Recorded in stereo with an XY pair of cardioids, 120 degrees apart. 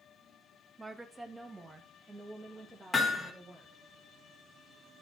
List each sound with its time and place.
0.8 s a woman speaking: 20° right, 0.9 m
2.9 s hammering: 10° left, 2 m